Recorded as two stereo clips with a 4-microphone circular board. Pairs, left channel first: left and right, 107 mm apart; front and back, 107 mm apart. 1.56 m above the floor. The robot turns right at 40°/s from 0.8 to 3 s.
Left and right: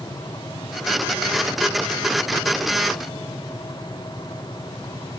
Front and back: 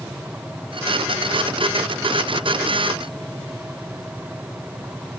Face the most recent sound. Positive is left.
No sound to turn to.